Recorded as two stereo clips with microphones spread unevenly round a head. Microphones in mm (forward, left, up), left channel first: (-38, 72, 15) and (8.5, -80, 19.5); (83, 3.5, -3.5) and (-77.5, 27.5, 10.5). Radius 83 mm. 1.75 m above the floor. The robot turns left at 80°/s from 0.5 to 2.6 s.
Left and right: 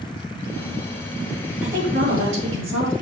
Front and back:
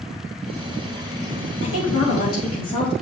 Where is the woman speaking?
10° left, 2.5 m; by 2.9 s 70° right, 2.5 m.